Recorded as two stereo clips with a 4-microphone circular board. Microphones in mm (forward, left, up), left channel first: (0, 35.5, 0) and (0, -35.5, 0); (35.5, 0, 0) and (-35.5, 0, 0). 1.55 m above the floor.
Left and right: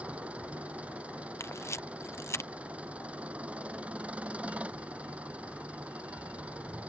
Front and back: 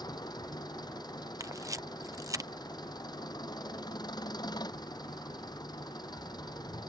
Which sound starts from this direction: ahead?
An engine running, at 0.0 s.